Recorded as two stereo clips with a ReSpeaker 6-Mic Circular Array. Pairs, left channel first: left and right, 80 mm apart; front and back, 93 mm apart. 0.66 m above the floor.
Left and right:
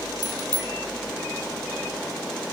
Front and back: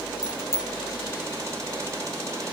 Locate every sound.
0.2 s a bicycle bell: 55° right